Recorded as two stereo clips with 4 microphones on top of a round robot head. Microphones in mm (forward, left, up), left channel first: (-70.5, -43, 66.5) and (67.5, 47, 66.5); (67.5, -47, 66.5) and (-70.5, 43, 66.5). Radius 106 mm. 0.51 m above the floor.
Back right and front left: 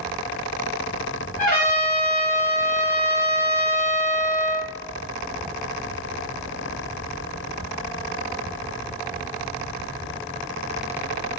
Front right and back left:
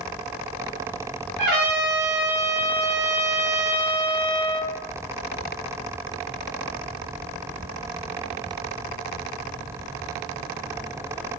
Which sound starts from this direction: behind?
A trumpet, at 1.4 s.